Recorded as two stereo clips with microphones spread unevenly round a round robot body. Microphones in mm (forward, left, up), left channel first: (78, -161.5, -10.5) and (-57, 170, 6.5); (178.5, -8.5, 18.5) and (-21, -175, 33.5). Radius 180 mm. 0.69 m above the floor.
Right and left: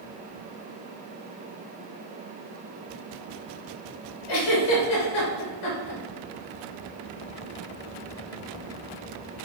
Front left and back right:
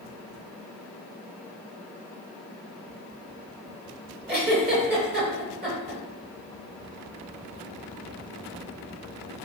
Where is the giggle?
85° right, 3.5 m.